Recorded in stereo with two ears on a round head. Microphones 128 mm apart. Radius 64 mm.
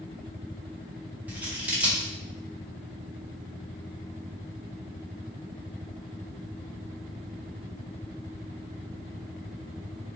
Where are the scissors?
10° right (ahead or behind), 0.6 m.